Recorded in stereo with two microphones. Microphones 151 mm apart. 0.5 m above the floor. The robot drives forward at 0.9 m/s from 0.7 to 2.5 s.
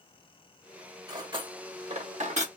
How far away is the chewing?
I don't hear chewing.